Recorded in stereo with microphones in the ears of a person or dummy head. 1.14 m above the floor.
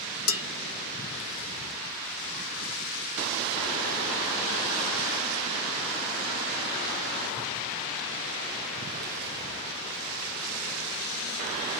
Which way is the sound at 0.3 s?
75° left (ahead or behind).